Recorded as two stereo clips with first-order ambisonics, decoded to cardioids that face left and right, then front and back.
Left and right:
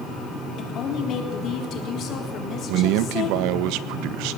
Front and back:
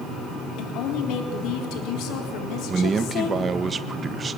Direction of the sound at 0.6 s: 35° left.